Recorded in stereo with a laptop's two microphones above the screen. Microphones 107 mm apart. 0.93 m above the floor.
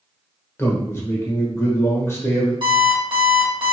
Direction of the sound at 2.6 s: 50° right (ahead or behind).